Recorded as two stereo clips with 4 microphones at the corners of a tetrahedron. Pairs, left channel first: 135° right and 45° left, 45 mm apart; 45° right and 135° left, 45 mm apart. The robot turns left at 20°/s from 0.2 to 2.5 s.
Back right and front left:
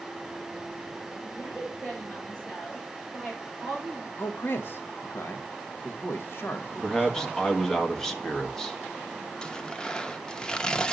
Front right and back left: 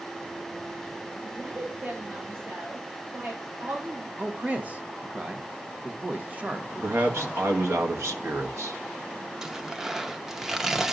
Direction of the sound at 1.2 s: Straight behind.